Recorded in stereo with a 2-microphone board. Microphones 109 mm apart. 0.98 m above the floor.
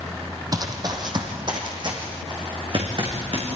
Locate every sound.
0.5 s running footsteps: 35° right (ahead or behind), 2.5 m; by 3.5 s 50° right (ahead or behind), 6 m